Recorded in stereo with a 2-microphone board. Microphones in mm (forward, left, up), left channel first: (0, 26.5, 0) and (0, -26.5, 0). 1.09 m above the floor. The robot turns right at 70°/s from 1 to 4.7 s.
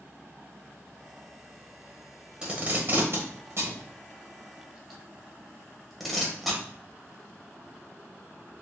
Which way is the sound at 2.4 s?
15° right (ahead or behind).